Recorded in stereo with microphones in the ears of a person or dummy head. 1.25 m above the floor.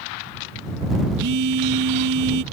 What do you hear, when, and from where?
1.2 s a phone buzzing: 65° right (ahead or behind)